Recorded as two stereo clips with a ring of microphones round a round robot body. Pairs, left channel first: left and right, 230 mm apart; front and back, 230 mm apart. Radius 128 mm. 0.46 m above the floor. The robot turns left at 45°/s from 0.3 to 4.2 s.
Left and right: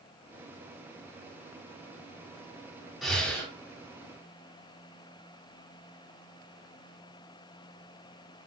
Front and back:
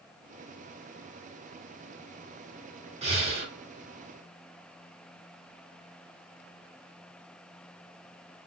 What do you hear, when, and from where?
3.0 s breathing: straight behind, 1.5 m; by 3.5 s 155° left, 1.5 m